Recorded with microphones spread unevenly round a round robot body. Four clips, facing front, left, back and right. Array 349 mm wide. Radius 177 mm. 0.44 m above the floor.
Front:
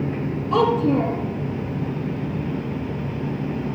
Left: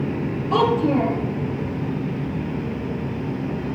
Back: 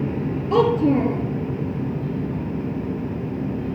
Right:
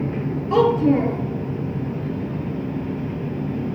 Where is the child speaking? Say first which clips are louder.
Right 2 dB, back 1 dB; 175° right, 4.5 m.